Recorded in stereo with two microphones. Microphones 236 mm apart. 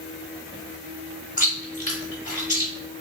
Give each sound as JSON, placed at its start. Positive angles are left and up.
{"t": 1.4, "sound": "chewing", "side_deg": 35, "distance_m": 1.2}